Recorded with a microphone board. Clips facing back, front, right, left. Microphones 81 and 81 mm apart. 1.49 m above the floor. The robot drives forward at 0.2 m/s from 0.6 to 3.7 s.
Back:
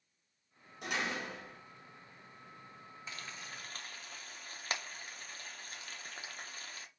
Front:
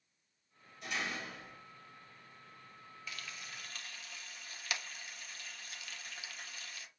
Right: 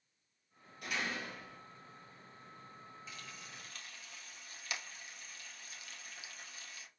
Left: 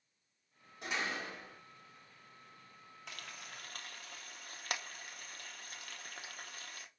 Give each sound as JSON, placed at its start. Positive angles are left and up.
{"t": 0.8, "sound": "a door slam", "azimuth_deg": 155, "distance_m": 1.6}
{"t": 3.1, "sound": "frying", "azimuth_deg": 120, "distance_m": 0.6}